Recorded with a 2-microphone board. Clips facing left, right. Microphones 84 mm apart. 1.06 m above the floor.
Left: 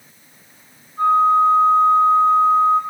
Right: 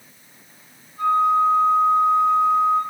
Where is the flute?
45° left (ahead or behind), 5 m.